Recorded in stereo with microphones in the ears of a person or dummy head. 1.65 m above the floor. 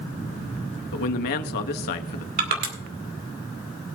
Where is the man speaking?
55° left (ahead or behind), 0.7 m.